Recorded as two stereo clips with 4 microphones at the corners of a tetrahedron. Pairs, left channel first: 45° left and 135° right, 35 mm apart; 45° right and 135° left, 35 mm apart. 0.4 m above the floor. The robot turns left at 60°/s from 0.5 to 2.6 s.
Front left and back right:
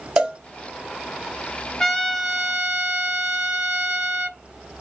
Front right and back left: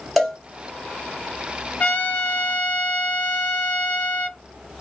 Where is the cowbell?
150° right, 1.3 m.